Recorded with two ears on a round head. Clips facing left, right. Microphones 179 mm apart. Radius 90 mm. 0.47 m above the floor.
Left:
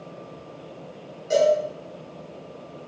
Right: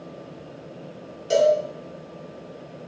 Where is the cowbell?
40° right (ahead or behind), 1.8 m.